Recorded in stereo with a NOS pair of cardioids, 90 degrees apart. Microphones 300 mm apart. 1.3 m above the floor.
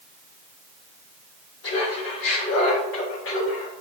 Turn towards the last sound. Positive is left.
turn(degrees=40)